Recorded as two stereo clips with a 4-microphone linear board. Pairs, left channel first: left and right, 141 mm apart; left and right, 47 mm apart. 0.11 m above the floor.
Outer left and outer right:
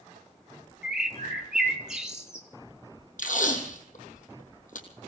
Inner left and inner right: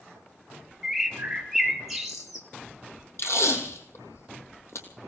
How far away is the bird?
About 1.7 m.